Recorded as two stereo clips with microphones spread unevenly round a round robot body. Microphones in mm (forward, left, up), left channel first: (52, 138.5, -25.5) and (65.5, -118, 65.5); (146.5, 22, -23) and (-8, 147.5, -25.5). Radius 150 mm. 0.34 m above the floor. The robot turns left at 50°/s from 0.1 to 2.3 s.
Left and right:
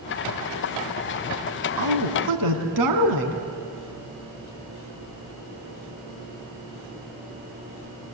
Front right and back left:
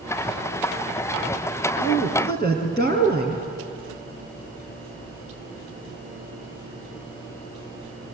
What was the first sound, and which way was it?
A woman speaking, 90° right.